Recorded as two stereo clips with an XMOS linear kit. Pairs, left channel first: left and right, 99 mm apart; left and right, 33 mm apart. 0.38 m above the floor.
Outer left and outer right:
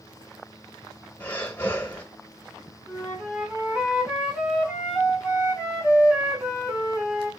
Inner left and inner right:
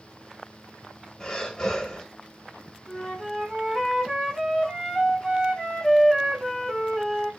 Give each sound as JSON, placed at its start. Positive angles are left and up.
{"t": 1.2, "sound": "breathing", "side_deg": 20, "distance_m": 1.2}
{"t": 2.9, "sound": "a flute", "side_deg": -15, "distance_m": 2.5}